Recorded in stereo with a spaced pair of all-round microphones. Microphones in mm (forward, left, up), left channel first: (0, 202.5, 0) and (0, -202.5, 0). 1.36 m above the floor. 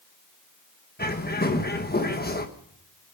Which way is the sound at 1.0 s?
25° left (ahead or behind).